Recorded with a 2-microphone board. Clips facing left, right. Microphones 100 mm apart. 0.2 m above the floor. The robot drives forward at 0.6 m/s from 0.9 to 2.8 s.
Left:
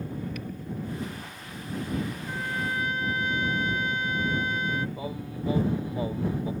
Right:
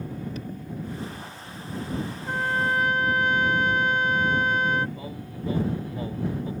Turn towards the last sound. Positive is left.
turn(degrees=20)  # may be behind; listen again after turning